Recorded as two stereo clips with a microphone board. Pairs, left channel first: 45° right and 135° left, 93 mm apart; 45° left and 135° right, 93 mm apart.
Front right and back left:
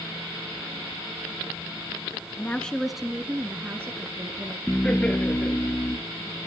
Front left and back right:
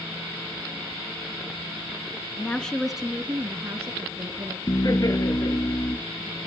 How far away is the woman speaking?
About 1.2 m.